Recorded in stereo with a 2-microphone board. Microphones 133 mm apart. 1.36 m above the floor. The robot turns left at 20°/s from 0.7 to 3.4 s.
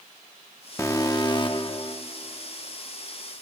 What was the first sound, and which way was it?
An alarm, 20° left (ahead or behind).